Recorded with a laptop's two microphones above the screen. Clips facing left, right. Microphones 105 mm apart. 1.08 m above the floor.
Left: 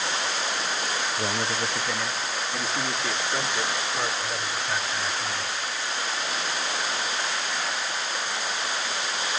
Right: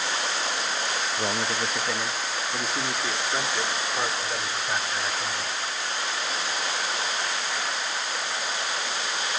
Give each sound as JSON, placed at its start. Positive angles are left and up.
{"t": 1.2, "sound": "a man speaking", "side_deg": -10, "distance_m": 0.7}